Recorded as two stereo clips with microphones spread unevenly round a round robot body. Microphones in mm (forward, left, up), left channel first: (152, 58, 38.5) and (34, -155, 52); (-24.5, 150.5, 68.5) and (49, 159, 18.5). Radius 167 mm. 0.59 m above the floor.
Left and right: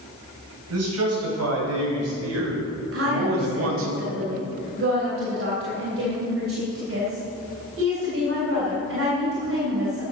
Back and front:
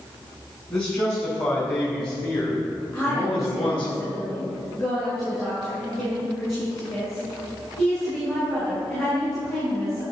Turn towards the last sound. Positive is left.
turn(degrees=-90)